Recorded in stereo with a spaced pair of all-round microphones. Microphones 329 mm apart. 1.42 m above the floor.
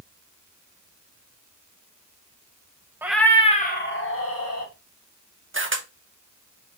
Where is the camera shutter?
40° right (ahead or behind), 0.7 m.